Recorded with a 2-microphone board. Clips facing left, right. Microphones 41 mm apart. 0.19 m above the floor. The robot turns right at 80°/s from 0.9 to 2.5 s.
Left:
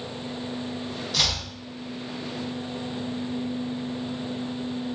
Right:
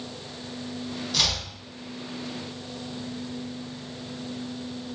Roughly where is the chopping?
Centre.